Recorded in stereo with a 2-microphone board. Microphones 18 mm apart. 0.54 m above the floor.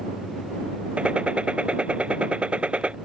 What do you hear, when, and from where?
1.0 s a gunshot: 80° right